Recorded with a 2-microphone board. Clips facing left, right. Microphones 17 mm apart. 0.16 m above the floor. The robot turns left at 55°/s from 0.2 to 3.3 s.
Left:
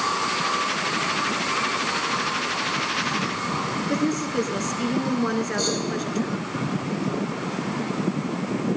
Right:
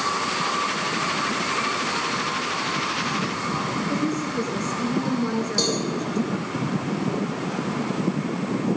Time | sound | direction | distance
3.9 | a woman speaking | 35° left (ahead or behind) | 2 m
5.6 | a cowbell | 50° right (ahead or behind) | 7.5 m